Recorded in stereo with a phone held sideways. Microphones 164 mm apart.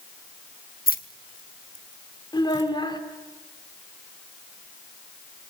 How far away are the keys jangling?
About 1.3 m.